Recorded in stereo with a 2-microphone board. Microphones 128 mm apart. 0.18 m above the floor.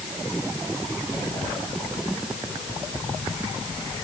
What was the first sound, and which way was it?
Only background noise.